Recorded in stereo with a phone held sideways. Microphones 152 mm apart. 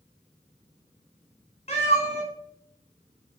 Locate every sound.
1.7 s a cat meowing: 45° left (ahead or behind), 1.1 m